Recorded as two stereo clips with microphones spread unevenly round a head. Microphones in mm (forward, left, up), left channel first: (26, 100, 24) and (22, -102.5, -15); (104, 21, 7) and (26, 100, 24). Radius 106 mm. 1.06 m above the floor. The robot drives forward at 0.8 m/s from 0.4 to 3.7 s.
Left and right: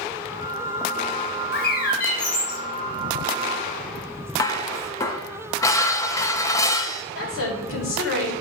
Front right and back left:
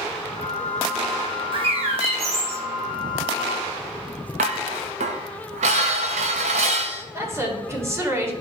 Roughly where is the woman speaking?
Left.